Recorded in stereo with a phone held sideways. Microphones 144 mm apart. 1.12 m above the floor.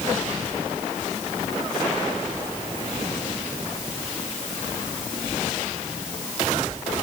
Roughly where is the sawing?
No sawing in this recording.